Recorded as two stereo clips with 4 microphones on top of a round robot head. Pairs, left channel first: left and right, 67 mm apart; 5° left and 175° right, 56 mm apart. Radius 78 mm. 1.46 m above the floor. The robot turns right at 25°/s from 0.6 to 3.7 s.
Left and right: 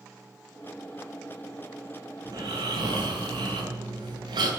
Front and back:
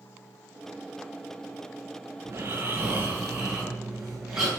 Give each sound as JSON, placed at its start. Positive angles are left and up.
{"t": 2.2, "sound": "snoring", "azimuth_deg": -125, "distance_m": 8.0}